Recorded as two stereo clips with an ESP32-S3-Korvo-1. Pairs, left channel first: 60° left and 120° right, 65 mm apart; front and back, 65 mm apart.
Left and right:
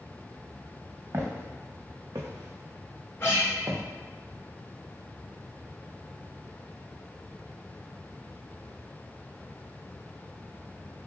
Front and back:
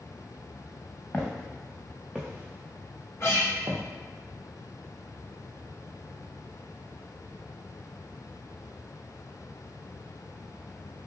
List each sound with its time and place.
1.1 s footsteps: 75° right, 1.0 m; by 3.8 s 160° right, 1.0 m
3.2 s a guitar: 25° left, 1.5 m